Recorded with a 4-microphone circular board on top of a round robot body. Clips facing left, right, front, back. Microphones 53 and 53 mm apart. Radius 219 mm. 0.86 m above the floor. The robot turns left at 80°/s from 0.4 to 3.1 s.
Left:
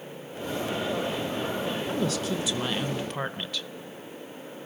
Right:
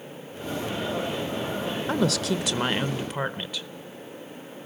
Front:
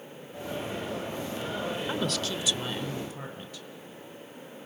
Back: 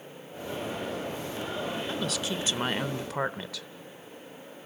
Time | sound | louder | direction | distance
1.9 | a woman speaking | right 6 dB, front 1 dB | 75° right | 0.8 m